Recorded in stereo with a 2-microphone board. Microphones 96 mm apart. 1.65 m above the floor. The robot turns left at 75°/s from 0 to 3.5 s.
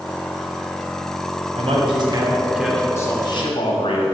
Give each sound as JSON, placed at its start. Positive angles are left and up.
{"t": 1.6, "sound": "a man speaking", "azimuth_deg": -100, "distance_m": 1.3}